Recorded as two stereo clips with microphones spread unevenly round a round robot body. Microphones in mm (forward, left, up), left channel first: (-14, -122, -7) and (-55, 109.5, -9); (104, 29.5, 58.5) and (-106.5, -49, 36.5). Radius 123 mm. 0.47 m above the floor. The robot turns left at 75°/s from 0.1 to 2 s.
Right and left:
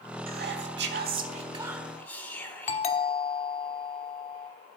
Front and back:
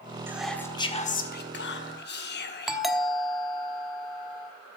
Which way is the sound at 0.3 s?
130° left.